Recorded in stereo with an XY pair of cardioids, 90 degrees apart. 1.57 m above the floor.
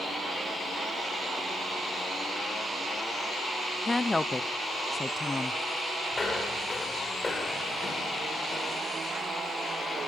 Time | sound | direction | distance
3.9 | a woman speaking | 20° left | 0.5 m
6.1 | footsteps | 35° left | 7 m